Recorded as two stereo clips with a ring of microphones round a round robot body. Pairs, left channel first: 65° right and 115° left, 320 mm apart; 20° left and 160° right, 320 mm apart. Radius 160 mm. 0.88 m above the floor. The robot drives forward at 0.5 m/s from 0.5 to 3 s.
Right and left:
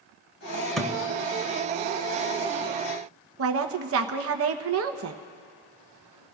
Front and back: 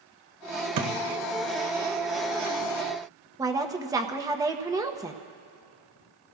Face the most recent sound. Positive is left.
turn(degrees=130)